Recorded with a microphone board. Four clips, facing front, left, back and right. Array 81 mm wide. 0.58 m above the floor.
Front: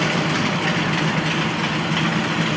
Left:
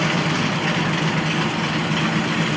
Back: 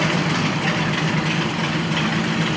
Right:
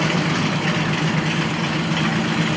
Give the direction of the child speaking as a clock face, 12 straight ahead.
I don't hear a child speaking.